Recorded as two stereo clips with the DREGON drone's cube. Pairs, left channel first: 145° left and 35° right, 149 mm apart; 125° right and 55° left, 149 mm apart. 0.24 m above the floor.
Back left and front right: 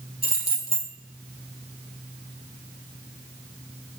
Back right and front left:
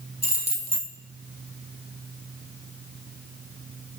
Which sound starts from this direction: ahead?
Keys jangling, at 0.2 s.